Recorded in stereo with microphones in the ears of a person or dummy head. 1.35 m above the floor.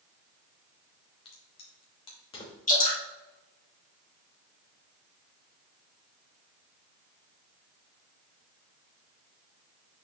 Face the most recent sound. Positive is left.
turn(degrees=40)  # may be behind; listen again after turning